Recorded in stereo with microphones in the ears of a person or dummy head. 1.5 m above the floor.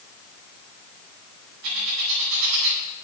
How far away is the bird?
About 4.5 m.